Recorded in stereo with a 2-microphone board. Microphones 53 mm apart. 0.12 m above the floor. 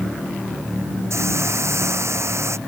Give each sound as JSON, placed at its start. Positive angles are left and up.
{"t": 1.1, "sound": "a hiss", "side_deg": -70}